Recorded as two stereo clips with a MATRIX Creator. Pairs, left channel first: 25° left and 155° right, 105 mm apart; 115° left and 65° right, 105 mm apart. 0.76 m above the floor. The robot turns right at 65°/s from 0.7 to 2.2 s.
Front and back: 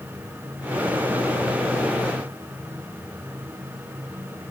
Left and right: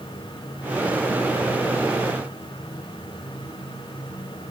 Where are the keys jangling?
No keys jangling in this recording.